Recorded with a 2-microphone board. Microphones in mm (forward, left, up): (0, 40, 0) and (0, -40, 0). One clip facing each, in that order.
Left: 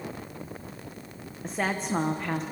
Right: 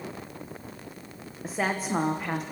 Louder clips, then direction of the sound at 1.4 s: Right 1 dB; 5° right (ahead or behind).